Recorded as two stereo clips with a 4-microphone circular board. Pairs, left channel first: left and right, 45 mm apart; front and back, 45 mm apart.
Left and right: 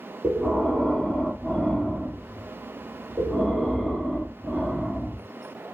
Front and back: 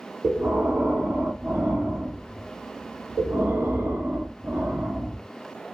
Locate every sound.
0.2 s breathing: 175° left, 1.4 m